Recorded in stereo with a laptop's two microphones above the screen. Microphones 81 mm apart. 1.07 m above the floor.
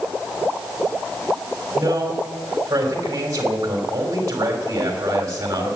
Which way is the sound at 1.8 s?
40° right (ahead or behind).